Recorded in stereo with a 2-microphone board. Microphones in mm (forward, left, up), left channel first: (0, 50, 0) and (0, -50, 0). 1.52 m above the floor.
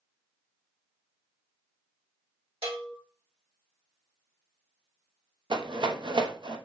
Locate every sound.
2.6 s a bell: 85° right, 2.5 m
5.5 s a rattle: 55° right (ahead or behind), 0.8 m